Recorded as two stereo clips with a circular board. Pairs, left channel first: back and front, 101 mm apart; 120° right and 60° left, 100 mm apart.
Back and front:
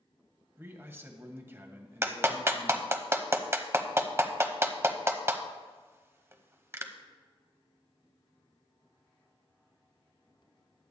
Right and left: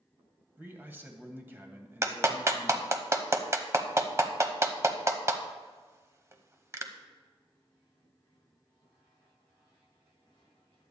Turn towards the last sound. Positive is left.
turn(degrees=35)